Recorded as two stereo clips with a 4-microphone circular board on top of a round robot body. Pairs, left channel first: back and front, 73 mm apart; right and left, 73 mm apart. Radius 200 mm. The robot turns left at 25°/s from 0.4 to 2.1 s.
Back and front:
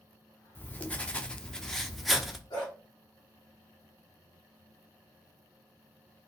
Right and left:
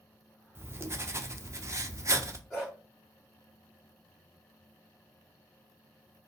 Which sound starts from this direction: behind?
A dog barking, at 2.5 s.